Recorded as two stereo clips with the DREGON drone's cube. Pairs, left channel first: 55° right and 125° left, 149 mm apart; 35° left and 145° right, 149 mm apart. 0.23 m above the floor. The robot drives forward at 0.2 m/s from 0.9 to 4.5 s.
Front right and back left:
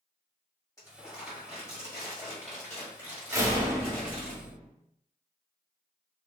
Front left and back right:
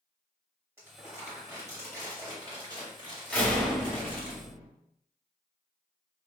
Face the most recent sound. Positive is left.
turn(degrees=140)